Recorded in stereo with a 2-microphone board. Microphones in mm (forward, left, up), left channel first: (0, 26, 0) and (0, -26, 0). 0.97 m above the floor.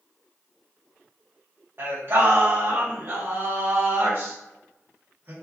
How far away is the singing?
About 0.9 m.